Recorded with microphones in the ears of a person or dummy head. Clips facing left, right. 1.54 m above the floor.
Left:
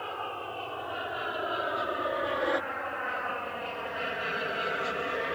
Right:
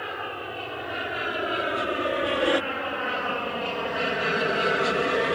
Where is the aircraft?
25° right (ahead or behind); by 5.4 s 60° right (ahead or behind).